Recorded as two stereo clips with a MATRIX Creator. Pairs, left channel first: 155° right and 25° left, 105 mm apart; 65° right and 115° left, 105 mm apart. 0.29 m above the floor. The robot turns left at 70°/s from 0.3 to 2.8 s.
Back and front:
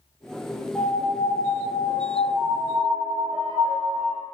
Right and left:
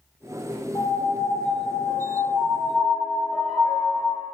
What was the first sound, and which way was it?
A piano, 80° right.